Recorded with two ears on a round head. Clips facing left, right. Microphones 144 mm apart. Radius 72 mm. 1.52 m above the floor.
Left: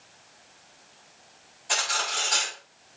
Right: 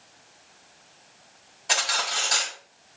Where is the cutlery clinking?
80° right, 6 m.